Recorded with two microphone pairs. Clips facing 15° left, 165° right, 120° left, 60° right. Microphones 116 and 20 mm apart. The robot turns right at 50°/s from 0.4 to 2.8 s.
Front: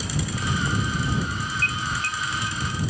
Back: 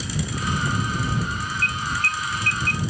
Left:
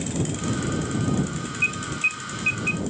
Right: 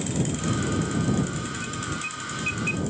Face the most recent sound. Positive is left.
turn(degrees=-155)